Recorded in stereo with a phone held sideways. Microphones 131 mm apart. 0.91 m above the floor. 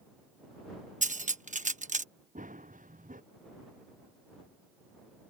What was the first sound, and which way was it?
Cutlery clinking, 70° right (ahead or behind).